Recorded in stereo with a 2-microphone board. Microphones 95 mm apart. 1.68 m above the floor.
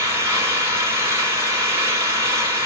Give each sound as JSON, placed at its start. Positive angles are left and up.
{"t": 0.0, "sound": "an engine running", "side_deg": -30, "distance_m": 3.0}